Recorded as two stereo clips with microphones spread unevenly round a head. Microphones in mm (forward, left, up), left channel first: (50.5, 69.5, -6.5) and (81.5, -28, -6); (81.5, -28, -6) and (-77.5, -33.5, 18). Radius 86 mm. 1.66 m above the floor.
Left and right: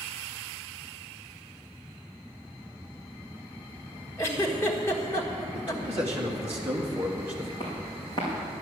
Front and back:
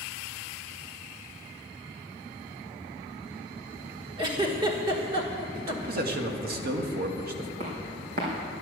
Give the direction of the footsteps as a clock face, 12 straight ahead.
6 o'clock.